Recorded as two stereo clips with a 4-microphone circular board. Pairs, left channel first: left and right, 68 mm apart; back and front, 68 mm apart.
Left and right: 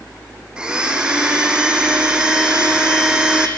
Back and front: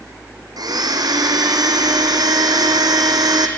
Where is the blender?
15° right, 2.5 m.